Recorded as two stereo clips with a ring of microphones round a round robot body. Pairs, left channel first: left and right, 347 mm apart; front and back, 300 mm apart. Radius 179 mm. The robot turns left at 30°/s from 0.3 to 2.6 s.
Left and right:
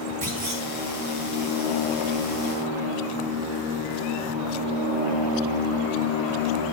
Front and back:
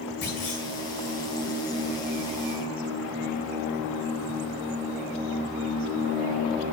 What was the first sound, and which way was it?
A clunk, 55° right.